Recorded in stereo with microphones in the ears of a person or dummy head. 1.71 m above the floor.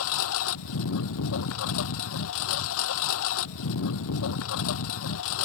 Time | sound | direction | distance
0.0 | a lawn mower | 70° left (ahead or behind) | ?